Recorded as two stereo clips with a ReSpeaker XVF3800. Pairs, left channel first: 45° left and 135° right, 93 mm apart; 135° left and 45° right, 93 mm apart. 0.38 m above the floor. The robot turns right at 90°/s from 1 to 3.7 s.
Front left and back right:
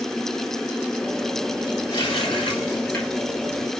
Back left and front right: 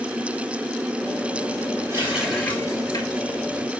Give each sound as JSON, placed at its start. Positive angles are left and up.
{"t": 1.9, "sound": "a running tap", "azimuth_deg": 10, "distance_m": 5.0}